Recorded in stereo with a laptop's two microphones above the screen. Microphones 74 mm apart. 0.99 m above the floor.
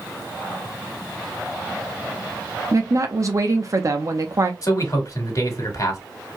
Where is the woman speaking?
45° right (ahead or behind), 0.8 m.